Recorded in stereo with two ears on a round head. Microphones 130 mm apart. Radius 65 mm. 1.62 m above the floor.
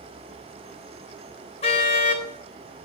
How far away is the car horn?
About 4 m.